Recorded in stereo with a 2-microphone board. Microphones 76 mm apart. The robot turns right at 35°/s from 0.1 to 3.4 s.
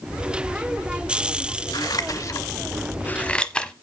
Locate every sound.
1.7 s scissors: 65° left (ahead or behind), 0.9 m; by 3.7 s 10° left (ahead or behind), 0.9 m